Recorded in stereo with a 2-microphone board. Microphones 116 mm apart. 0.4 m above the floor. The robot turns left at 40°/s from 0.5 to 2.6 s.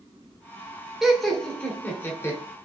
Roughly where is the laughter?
Centre.